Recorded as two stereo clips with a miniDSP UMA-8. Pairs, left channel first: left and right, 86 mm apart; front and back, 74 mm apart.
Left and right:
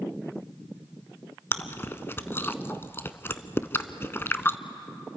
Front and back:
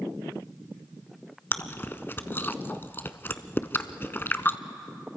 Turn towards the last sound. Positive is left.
turn(degrees=45)